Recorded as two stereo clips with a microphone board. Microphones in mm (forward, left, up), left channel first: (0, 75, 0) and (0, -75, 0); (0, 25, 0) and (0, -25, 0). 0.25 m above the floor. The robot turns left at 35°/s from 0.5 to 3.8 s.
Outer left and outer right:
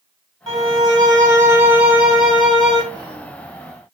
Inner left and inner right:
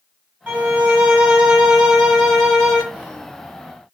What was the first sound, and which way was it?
A violin, 105° right.